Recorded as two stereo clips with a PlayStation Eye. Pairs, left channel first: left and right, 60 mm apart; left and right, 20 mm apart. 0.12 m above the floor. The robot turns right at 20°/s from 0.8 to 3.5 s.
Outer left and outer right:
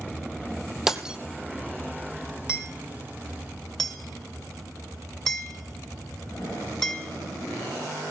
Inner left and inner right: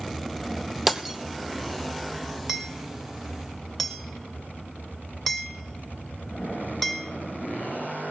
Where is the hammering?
10° right (ahead or behind), 2.5 m; by 7.1 s 10° left (ahead or behind), 2.5 m.